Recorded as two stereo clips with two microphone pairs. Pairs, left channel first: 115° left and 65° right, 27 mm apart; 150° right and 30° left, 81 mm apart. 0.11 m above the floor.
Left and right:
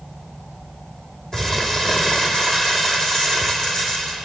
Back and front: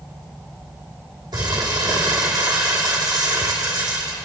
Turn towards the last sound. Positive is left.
turn(degrees=50)